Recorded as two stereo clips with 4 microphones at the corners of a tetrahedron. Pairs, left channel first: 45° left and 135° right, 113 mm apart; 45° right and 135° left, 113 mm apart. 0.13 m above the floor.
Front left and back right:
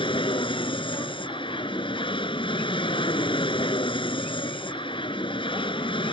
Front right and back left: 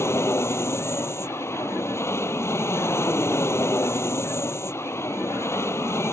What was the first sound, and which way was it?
An aircraft, 20° left.